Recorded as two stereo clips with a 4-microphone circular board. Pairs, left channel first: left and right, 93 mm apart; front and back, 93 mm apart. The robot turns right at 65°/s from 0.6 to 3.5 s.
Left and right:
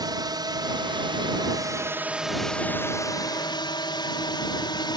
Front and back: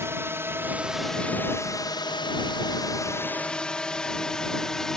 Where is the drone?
120° right; by 5.0 s 85° left.